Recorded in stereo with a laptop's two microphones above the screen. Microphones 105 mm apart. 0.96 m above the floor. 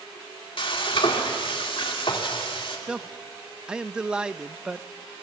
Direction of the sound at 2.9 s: 10° right (ahead or behind).